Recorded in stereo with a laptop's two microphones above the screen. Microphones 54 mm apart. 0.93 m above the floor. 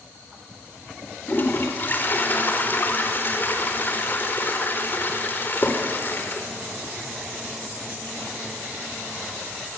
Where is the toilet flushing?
40° left (ahead or behind), 4 m.